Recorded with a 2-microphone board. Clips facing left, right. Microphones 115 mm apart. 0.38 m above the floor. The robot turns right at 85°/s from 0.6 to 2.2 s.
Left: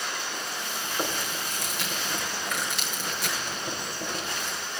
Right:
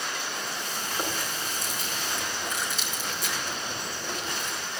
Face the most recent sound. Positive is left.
turn(degrees=70)  # may be behind; listen again after turning